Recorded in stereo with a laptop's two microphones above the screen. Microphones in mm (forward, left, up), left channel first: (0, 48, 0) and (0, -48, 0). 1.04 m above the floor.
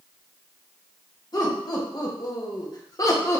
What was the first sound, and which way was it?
Laughter, 40° left (ahead or behind).